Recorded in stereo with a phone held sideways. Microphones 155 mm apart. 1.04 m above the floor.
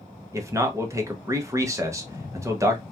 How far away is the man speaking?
About 0.6 m.